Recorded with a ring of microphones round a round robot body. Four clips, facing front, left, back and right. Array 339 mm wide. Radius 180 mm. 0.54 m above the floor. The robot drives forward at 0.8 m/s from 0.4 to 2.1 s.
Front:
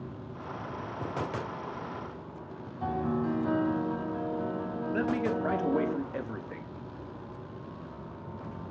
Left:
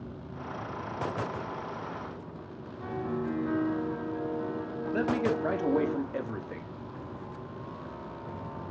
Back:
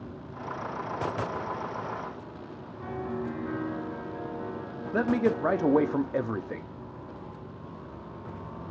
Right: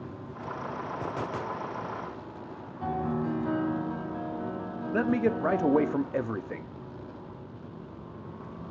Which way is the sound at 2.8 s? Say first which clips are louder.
Right 3 dB, front 4 dB; 30° right.